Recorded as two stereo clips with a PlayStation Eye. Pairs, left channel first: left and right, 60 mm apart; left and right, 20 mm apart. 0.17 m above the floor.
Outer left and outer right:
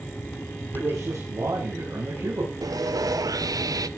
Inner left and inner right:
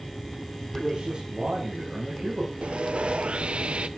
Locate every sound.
0.7 s a man speaking: 55° right (ahead or behind), 9 m
2.6 s sawing: 80° right, 0.8 m